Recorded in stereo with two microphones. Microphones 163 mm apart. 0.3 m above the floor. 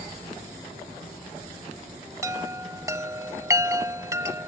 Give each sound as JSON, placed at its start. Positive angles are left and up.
{"t": 2.2, "sound": "a chime", "side_deg": -20}